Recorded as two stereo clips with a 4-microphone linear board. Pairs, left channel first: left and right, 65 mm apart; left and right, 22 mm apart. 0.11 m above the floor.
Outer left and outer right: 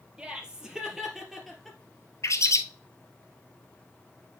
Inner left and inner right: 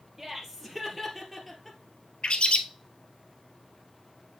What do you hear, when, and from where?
0.2 s laughter: 15° right (ahead or behind), 2.5 m; by 1.8 s 5° left (ahead or behind), 2 m
2.2 s a bird: 55° left (ahead or behind), 0.7 m